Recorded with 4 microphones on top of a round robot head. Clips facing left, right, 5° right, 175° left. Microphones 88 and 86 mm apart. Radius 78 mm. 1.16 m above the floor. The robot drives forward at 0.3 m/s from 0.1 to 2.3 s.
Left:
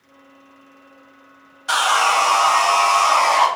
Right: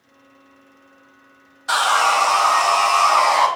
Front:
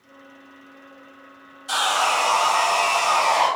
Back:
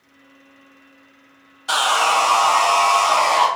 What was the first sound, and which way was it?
Sawing, 175° right.